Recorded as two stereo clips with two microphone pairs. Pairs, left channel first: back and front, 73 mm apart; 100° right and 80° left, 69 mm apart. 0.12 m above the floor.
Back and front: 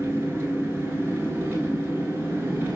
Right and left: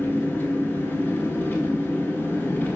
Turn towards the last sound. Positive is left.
turn(degrees=-45)